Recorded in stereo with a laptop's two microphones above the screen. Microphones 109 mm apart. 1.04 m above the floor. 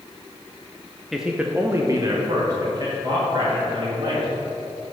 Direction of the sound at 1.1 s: Centre (ahead or behind).